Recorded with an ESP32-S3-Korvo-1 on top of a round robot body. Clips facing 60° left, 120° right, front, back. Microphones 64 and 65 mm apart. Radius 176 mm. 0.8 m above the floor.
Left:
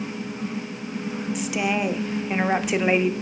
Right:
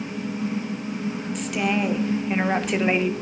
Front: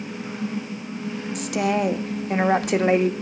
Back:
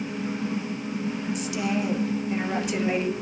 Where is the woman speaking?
25° right, 2 m.